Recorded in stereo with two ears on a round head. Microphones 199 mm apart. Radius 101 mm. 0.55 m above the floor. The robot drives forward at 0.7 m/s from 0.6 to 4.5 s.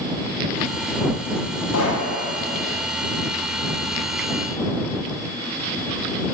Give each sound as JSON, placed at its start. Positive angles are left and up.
{"t": 1.7, "sound": "a pop", "side_deg": 70, "distance_m": 9.0}